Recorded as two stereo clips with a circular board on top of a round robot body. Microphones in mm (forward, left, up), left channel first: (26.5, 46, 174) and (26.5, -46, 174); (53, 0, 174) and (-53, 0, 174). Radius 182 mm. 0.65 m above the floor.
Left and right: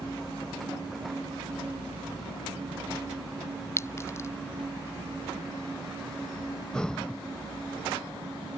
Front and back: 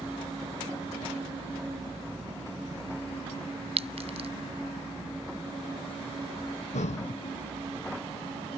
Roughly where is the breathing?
Ahead.